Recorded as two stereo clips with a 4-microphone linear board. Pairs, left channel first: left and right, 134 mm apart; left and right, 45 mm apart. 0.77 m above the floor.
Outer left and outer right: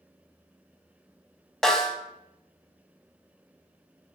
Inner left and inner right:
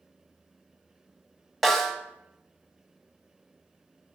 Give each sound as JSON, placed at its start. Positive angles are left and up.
{"t": 1.6, "sound": "a snare drum", "side_deg": 5, "distance_m": 0.9}